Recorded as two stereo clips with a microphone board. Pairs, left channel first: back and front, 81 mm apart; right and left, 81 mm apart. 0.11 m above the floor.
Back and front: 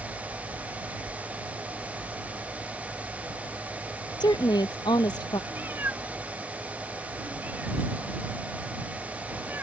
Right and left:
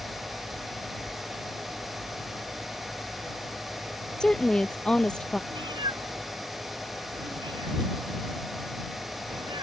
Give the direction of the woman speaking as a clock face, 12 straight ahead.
6 o'clock.